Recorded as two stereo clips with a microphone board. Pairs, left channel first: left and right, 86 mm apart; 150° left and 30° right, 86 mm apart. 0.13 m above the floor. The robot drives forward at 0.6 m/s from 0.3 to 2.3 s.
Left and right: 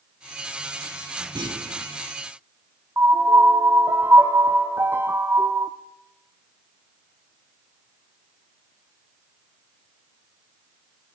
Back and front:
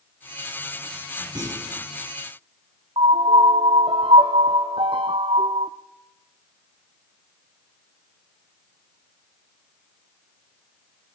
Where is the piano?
25° right, 0.7 m.